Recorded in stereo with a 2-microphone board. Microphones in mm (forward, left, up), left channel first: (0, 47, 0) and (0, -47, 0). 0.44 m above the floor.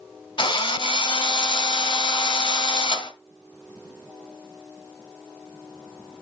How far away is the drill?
About 1.9 m.